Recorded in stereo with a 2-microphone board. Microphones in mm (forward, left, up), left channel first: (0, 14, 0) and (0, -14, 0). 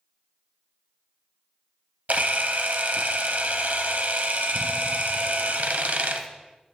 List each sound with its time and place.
2.1 s a camera shutter: 75° right (ahead or behind), 0.6 m